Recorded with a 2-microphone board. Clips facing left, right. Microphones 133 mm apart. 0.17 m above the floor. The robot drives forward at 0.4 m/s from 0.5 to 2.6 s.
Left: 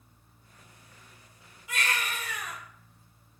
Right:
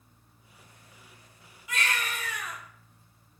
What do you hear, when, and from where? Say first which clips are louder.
1.7 s a baby crying: even; 55° left (ahead or behind), 1.3 m